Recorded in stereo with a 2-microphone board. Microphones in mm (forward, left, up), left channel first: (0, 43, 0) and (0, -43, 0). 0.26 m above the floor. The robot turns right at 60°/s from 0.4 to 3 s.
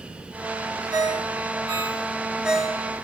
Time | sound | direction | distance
0.9 | a ringtone | 55° right (ahead or behind) | 1.4 m